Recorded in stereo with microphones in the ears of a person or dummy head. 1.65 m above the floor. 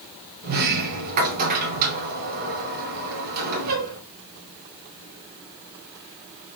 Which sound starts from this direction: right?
A sliding door, at 0.4 s.